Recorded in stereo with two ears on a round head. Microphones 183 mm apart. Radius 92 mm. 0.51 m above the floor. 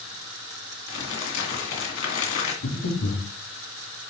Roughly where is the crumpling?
Left.